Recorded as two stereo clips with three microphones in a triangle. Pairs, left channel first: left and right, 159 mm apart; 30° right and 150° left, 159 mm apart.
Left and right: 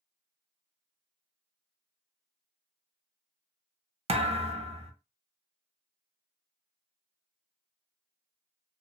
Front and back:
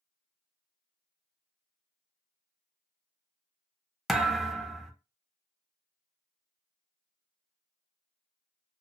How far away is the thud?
About 0.5 m.